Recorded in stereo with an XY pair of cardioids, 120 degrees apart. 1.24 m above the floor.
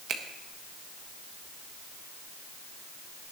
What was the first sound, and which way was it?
A finger snap, 60° right.